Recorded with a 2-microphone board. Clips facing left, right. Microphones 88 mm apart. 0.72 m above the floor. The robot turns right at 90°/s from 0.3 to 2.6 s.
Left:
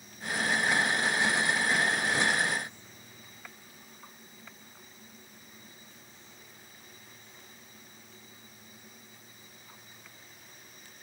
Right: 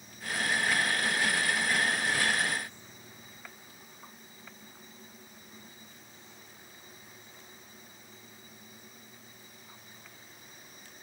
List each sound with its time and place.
Only background noise.